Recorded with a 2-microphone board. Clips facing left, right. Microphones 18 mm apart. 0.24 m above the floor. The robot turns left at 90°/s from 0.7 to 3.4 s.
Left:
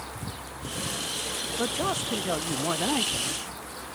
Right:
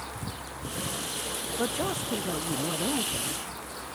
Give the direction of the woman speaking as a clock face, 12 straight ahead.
6 o'clock.